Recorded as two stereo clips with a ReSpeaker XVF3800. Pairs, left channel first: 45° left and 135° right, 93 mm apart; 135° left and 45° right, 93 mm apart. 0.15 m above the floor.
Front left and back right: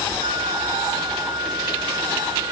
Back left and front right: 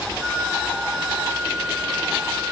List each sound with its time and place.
0.2 s a flute: 125° right, 1.5 m